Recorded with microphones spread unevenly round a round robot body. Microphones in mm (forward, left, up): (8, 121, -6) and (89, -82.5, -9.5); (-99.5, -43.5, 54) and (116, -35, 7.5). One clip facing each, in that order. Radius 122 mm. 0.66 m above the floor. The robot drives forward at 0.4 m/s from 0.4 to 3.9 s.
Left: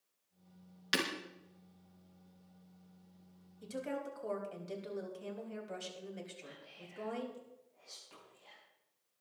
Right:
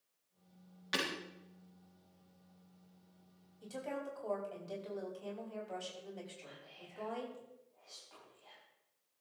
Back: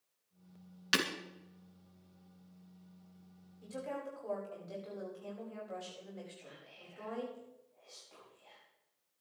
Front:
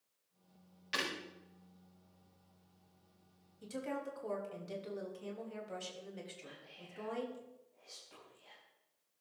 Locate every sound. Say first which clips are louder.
0.9 s breaking glass: left 2 dB, back 6 dB; 170° left, 3 m
3.6 s a woman speaking: left 2 dB, front 1 dB; 50° left, 5 m
6.4 s whispering: left 2 dB, front 1 dB; 65° left, 4.5 m